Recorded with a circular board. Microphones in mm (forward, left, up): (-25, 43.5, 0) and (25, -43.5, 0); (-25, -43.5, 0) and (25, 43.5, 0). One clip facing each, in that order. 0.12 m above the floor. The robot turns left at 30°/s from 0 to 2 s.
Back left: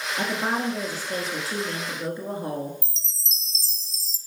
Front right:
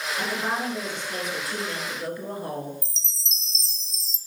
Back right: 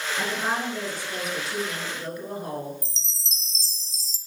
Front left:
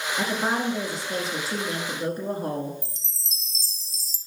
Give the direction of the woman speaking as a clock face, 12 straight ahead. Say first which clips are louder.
Back left 3 dB, front left 3 dB; 8 o'clock.